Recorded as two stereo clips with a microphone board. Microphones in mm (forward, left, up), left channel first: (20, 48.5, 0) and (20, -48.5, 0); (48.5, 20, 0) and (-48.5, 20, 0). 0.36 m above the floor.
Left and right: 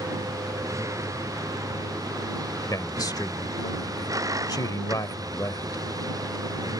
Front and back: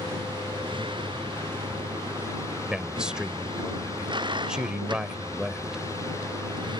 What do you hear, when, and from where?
0.0 s a vehicle: 150° right; by 6.8 s 140° right
2.7 s a man speaking: 100° left